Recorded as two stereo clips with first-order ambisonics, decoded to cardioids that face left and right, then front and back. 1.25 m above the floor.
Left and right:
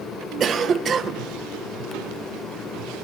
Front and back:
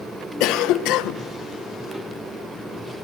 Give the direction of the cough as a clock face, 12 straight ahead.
1 o'clock.